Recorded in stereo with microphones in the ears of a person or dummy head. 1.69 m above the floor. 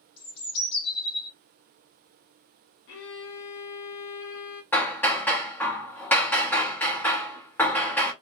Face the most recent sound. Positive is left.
turn(degrees=10)  # may be behind; listen again after turning